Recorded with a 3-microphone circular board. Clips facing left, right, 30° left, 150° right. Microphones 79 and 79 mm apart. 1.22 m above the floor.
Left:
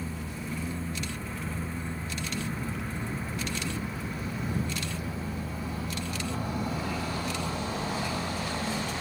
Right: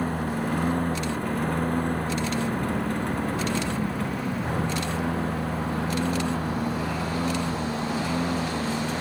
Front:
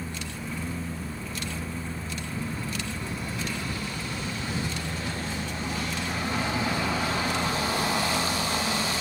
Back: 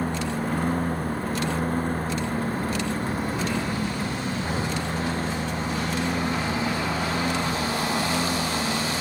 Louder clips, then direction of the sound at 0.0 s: Right 10 dB, back 10 dB; 115° right.